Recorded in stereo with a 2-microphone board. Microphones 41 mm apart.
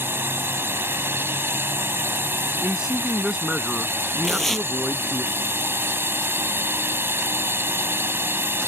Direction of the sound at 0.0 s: 65° right (ahead or behind).